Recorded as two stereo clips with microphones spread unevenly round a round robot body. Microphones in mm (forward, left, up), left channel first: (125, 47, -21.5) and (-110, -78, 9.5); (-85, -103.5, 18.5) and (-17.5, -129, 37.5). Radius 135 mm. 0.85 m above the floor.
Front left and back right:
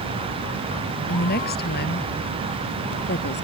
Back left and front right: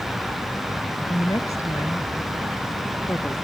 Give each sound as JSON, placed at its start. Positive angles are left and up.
{"t": 1.1, "sound": "a woman speaking", "azimuth_deg": 85}